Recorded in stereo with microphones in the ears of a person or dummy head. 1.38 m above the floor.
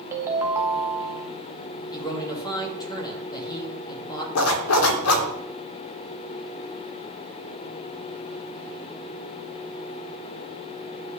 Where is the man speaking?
30° left (ahead or behind), 2 m.